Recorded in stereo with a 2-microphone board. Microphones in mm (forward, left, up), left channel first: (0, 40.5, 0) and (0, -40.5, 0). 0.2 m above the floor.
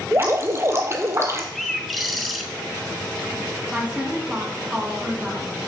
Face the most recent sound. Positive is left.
turn(degrees=-15)  # may be behind; listen again after turning